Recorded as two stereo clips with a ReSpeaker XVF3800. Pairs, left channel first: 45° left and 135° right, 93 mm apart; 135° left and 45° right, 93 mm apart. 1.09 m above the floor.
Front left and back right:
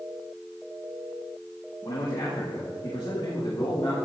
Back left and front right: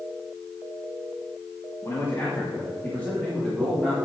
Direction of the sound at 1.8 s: 80° left.